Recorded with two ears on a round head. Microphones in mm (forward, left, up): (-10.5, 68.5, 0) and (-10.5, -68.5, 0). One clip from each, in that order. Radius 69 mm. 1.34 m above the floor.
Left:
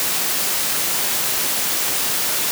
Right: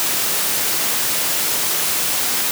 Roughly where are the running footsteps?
No running footsteps in this recording.